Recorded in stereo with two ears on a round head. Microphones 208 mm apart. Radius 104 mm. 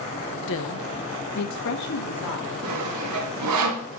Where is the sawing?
90° right, 2.0 m.